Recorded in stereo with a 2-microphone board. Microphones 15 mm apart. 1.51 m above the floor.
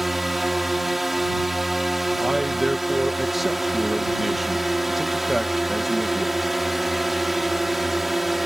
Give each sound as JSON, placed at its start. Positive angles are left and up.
{"t": 0.0, "sound": "a drone", "side_deg": -10}
{"t": 2.2, "sound": "a man speaking", "side_deg": -10}